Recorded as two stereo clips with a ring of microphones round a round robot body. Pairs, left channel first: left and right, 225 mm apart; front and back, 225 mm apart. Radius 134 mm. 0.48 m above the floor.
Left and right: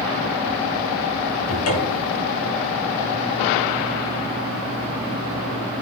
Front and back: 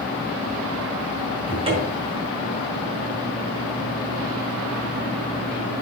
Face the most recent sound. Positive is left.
turn(degrees=110)